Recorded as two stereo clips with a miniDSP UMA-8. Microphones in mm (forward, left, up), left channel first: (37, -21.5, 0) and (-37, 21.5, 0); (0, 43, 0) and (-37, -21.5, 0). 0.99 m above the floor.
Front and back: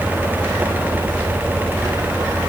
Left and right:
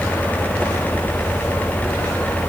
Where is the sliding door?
No sliding door in this recording.